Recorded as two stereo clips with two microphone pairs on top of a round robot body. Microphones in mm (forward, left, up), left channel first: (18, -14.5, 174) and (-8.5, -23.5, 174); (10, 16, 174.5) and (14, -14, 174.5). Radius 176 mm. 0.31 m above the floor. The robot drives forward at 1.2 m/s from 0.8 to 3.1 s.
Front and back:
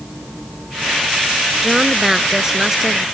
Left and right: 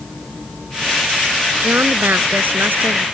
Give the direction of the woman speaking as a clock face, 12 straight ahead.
3 o'clock.